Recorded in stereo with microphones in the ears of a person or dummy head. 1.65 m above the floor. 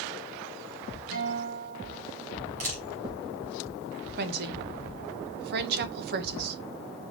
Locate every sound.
1.1 s a guitar: 80° right, 3 m
2.6 s a camera shutter: 40° right (ahead or behind), 1.9 m
4.2 s a woman speaking: 60° right (ahead or behind), 1.0 m